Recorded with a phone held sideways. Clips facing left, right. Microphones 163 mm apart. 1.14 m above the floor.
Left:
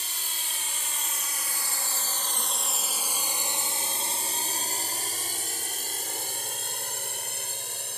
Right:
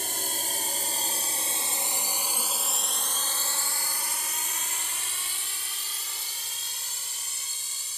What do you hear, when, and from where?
0.0 s a drone: 50° right (ahead or behind); by 8.0 s 60° left (ahead or behind)